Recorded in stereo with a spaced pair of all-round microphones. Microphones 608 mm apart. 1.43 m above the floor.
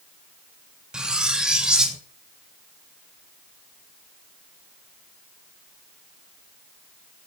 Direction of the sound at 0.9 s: Centre (ahead or behind).